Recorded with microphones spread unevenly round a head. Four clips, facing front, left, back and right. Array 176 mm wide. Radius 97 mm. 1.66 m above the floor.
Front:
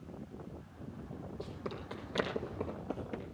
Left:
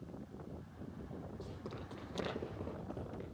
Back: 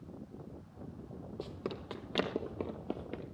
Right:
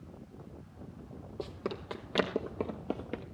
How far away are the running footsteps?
About 4 m.